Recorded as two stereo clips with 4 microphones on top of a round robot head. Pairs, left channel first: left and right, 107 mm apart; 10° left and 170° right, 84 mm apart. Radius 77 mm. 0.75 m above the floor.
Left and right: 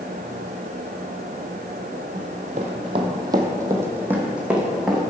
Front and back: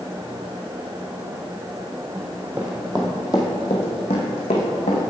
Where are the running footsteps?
115° right, 1.1 m; by 5.0 s 5° right, 1.9 m.